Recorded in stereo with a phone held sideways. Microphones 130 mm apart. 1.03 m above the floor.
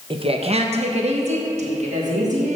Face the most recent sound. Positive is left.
turn(degrees=-65)  # may be behind; listen again after turning